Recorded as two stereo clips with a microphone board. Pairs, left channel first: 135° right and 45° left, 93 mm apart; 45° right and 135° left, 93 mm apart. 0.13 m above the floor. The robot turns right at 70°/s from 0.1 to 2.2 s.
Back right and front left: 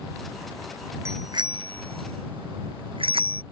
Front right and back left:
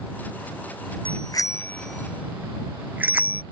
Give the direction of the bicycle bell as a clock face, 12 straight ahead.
1 o'clock.